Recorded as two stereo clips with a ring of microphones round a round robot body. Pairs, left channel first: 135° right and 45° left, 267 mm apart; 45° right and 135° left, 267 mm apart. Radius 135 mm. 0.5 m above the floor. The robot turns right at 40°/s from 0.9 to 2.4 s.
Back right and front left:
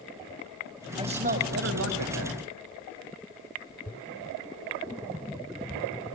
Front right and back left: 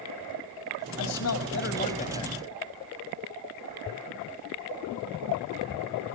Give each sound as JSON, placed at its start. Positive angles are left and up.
{"t": 1.0, "sound": "a man speaking", "azimuth_deg": -25, "distance_m": 3.5}